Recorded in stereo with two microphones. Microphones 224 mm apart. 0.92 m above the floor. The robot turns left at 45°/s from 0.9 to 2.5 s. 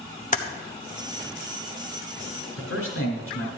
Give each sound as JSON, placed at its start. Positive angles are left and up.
{"t": 0.3, "sound": "typing on a keyboard", "side_deg": 35, "distance_m": 0.9}
{"t": 2.6, "sound": "a man speaking", "side_deg": 80, "distance_m": 4.5}